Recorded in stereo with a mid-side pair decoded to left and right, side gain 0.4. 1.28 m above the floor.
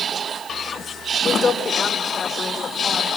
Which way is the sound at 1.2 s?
45° left.